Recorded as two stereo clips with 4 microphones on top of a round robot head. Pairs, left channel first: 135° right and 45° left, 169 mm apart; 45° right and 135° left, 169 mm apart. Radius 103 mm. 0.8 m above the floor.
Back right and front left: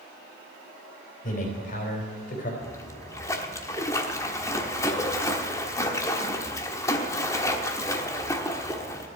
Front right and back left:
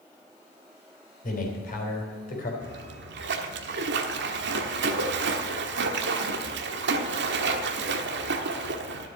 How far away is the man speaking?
About 4 m.